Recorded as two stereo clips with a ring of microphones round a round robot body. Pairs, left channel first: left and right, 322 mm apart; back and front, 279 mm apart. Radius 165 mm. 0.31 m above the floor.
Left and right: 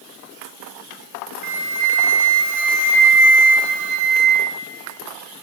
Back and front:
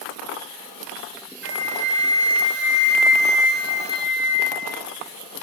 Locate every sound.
1.4 s a flute: 55° right, 1.1 m